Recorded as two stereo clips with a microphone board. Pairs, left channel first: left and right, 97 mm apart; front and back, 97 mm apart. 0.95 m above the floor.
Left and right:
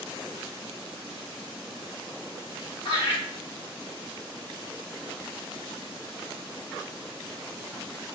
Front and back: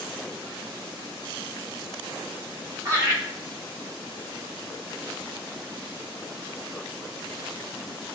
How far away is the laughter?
About 1.9 m.